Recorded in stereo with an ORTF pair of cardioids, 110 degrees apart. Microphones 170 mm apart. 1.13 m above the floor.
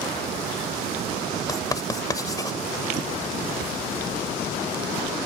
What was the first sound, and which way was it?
Writing, 20° left.